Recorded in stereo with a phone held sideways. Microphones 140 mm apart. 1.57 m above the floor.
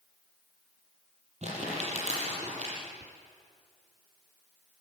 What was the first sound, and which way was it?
Crumpling, 50° right (ahead or behind).